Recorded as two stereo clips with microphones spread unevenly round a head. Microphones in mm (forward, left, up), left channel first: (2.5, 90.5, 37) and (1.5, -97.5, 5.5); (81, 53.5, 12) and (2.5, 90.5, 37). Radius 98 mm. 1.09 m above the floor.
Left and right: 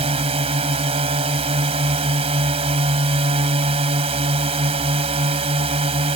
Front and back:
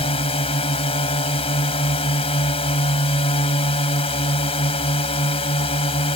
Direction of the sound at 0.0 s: 30° right.